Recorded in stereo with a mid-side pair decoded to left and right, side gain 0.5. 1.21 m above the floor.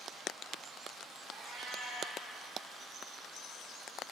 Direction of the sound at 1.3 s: 55° right.